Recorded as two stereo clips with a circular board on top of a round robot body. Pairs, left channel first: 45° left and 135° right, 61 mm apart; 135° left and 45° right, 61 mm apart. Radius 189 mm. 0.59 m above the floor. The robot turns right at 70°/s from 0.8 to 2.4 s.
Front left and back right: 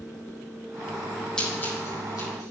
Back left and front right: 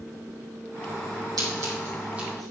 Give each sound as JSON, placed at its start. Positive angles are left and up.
{"t": 1.4, "sound": "scissors", "azimuth_deg": -30, "distance_m": 4.5}